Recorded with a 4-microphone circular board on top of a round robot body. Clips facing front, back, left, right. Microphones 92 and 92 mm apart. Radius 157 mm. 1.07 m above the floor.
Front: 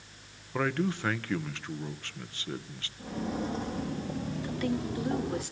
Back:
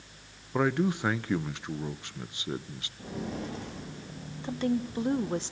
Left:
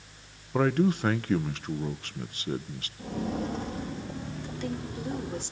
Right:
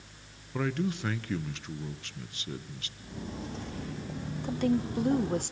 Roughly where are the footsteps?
Left.